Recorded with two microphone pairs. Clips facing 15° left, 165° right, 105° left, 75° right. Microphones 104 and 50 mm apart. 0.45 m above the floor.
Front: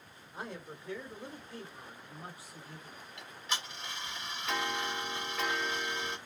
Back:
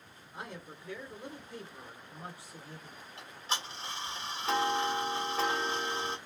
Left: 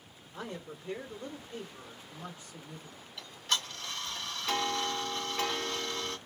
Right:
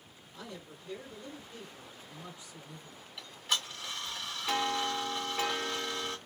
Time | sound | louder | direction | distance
0.3 | a man speaking | front 1 dB, left 5 dB | 95° left | 1.2 m
3.2 | ticking | back 2 dB, left 1 dB | 150° right | 1.4 m